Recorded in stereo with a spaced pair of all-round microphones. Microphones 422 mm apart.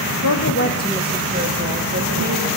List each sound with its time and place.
0.2 s a woman speaking: 50° left (ahead or behind), 0.9 m; by 2.5 s 45° right (ahead or behind), 2 m